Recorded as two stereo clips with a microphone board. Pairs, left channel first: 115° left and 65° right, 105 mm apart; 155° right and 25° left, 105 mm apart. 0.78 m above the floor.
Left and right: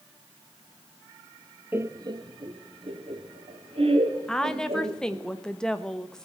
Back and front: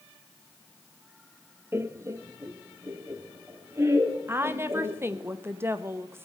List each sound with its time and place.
1.7 s laughter: 20° right, 0.6 m; by 5.3 s 45° right, 3.5 m
4.3 s a woman speaking: 40° left, 0.9 m